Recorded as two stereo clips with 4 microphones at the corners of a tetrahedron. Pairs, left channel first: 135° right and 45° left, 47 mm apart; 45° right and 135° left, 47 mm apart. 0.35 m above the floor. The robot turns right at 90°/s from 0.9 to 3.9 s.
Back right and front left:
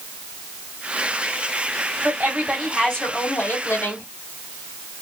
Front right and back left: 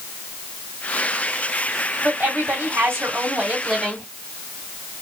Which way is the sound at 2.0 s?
75° left.